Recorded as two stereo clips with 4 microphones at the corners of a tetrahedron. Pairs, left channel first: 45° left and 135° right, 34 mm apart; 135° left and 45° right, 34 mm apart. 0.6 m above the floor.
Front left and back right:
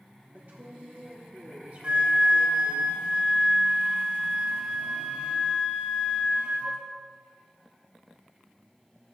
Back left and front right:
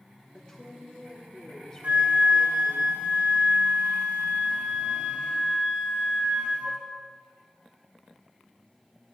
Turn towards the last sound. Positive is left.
turn(degrees=-80)